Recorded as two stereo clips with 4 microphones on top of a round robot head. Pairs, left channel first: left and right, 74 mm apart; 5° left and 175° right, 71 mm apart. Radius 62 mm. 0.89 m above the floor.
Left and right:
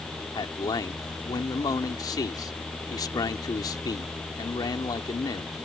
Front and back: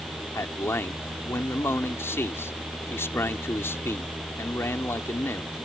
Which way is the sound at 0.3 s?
60° left.